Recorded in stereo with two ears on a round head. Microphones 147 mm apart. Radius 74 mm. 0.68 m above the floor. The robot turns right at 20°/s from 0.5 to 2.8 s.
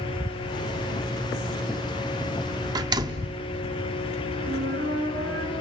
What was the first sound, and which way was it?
A door slam, 25° right (ahead or behind).